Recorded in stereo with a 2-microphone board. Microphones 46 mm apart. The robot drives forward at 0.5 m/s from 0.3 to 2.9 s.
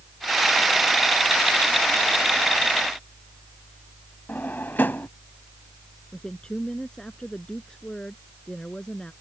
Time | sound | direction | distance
4.3 | a drawer | 45° left (ahead or behind) | ?
6.1 | a woman speaking | 15° left (ahead or behind) | ?